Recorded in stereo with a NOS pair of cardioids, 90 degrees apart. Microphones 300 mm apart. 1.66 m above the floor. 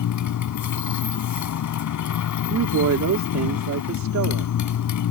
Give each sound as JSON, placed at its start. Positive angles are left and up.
{"t": 0.0, "sound": "a motorcycle", "azimuth_deg": 65}
{"t": 2.5, "sound": "a woman speaking", "azimuth_deg": -60}